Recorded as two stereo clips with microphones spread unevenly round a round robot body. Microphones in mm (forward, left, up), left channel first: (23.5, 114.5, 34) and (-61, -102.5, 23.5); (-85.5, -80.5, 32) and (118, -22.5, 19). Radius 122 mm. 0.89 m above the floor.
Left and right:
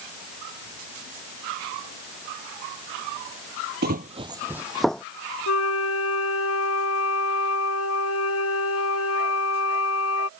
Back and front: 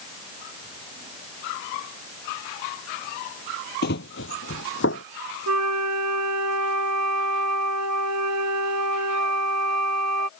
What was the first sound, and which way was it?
Running footsteps, 150° right.